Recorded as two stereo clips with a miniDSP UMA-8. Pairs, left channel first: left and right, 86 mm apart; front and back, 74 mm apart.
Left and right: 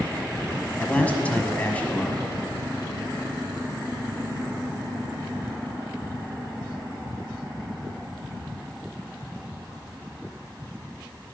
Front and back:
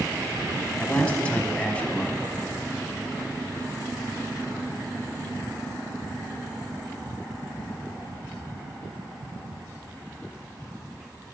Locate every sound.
0.8 s a man speaking: 45° left, 1.2 m